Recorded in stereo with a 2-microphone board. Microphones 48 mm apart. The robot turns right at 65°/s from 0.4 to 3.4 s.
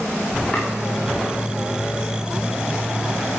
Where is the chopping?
30° left (ahead or behind), 6 m; by 0.7 s 25° left (ahead or behind), 6 m.